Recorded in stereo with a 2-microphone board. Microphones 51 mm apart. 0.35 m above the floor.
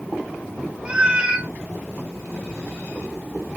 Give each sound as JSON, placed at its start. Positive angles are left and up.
{"t": 0.8, "sound": "a cat meowing", "side_deg": -20, "distance_m": 1.0}